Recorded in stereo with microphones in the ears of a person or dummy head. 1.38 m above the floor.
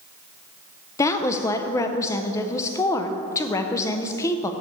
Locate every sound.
1.0 s a woman speaking: 15° left (ahead or behind), 0.5 m